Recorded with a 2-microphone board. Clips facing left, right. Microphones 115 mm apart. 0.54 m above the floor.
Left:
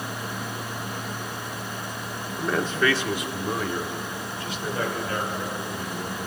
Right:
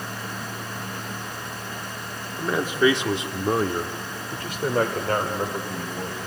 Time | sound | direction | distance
2.4 | a man speaking | centre (ahead or behind) | 1.0 m